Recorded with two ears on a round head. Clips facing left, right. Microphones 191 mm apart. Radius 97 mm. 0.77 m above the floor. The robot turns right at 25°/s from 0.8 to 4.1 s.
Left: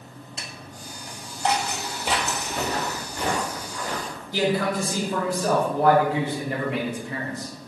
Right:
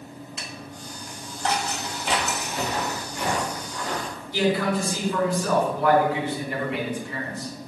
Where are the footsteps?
55° left (ahead or behind), 2.5 m; by 4.2 s 10° left (ahead or behind), 5.5 m.